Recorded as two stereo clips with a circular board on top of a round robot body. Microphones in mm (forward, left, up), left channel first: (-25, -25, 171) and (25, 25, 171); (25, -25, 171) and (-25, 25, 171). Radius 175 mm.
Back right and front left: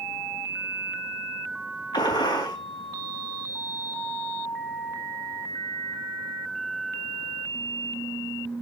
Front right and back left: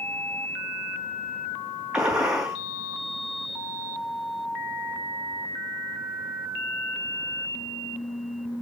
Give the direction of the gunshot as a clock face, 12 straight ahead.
5 o'clock.